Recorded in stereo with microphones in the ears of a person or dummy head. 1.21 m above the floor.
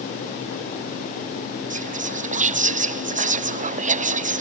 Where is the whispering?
35° right (ahead or behind).